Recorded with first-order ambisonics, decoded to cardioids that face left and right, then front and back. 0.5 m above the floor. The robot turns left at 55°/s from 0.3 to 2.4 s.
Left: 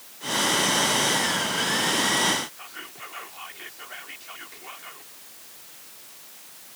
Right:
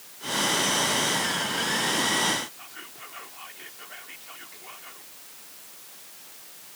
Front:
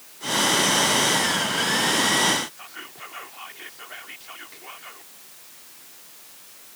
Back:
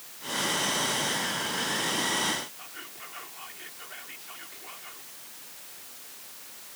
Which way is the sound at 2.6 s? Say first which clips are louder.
Left 3 dB, front 4 dB; 30° left.